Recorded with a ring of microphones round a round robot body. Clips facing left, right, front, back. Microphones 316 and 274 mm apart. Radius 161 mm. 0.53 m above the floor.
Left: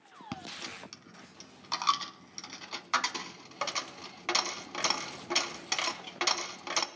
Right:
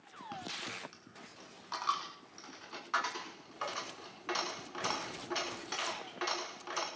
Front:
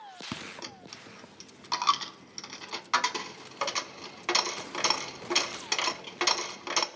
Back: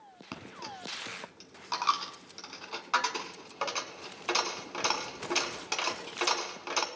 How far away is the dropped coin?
About 1.0 m.